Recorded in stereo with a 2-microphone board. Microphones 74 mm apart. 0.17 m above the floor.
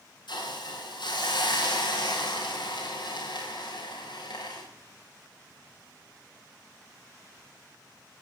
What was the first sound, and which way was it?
A hiss, 80° left.